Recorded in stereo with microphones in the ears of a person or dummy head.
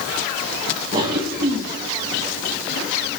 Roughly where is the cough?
Right.